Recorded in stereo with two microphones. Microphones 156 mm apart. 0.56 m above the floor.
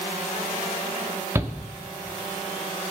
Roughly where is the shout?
Centre.